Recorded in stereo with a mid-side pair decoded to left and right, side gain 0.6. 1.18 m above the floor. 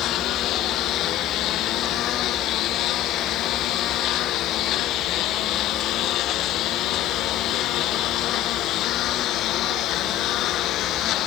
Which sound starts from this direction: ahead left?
A lawn mower, at 0.0 s.